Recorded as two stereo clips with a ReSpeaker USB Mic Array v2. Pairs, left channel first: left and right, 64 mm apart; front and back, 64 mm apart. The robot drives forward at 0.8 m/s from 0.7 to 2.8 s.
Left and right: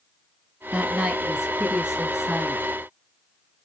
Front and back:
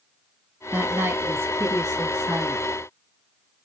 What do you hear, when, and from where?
0.7 s a woman speaking: 145° right, 1.1 m; by 2.8 s 170° right, 2.5 m